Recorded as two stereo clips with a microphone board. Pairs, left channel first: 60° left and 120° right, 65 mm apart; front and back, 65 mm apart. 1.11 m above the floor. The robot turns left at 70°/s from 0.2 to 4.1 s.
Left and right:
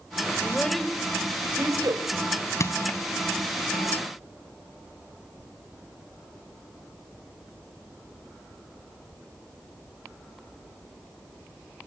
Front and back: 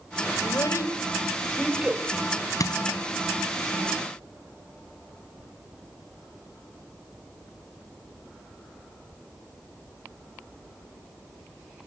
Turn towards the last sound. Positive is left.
turn(degrees=-80)